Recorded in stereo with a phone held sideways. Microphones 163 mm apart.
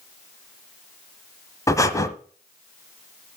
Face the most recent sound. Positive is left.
turn(degrees=20)  # may be behind; listen again after turning